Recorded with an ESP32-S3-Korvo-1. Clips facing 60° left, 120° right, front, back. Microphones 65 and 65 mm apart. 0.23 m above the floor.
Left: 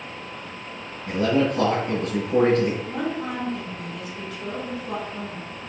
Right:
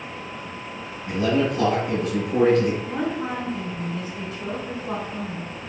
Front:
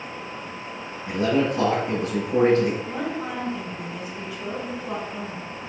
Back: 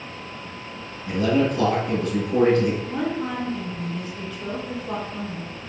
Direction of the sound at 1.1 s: 30° left.